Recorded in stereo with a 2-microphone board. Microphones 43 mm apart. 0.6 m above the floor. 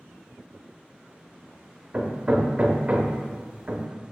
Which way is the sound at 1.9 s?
25° right (ahead or behind).